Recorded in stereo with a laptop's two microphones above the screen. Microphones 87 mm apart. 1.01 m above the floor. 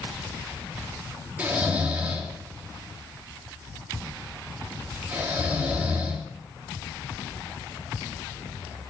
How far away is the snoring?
About 2.5 m.